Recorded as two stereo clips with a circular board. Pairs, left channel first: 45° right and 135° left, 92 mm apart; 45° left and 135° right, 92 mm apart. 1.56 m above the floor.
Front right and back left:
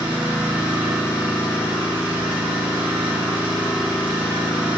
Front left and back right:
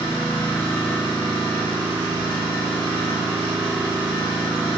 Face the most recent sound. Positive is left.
turn(degrees=60)